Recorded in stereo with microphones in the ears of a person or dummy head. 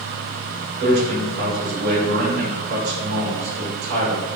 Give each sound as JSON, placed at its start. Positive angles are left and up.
{"t": 0.8, "sound": "a man speaking", "side_deg": -70, "distance_m": 1.4}